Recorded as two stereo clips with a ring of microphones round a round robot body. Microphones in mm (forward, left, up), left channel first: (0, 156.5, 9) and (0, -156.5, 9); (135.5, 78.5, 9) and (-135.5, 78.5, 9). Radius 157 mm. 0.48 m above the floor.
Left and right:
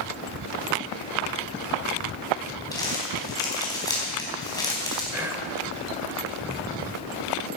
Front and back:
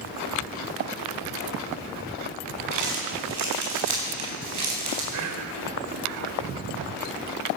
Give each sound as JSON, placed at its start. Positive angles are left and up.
{"t": 2.7, "sound": "crumpling", "azimuth_deg": 170, "distance_m": 4.0}
{"t": 5.1, "sound": "whispering", "azimuth_deg": -170, "distance_m": 1.6}